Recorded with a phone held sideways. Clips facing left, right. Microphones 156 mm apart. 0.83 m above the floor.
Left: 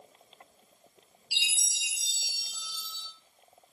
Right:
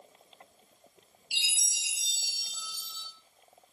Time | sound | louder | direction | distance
1.3 | a chime | left 2 dB | 50° right (ahead or behind) | 0.9 m